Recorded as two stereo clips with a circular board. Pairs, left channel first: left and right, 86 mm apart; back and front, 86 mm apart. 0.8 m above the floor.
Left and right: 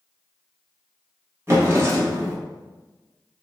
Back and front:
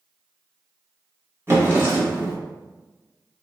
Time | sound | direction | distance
1.5 | a drawer | 45° right | 0.7 m